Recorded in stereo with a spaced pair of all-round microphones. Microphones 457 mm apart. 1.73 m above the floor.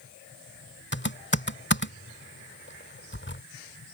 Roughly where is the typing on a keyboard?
Left.